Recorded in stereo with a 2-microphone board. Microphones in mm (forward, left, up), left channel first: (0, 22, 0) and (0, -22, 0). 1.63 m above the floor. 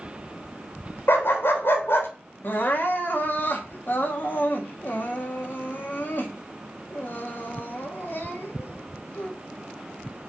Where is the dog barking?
60° left (ahead or behind), 3 m.